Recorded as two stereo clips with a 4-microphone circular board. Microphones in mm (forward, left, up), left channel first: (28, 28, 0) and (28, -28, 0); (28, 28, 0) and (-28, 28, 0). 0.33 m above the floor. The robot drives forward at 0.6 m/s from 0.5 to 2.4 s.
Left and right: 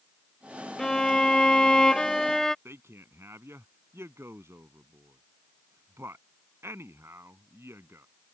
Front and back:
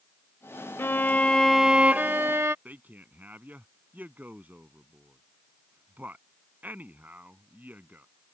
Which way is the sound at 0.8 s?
10° left.